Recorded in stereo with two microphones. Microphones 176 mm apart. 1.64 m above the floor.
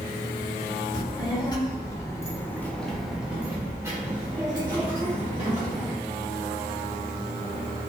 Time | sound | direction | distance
0.9 | a child speaking | 25° left (ahead or behind) | 1.3 m